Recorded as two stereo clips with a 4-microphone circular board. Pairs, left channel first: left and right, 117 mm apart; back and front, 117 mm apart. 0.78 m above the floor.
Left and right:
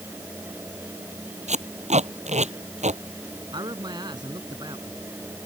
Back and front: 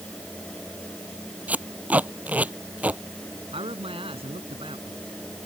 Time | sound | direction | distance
1.5 | tape being pulled | 75° right | ?
3.5 | a man speaking | 40° right | ?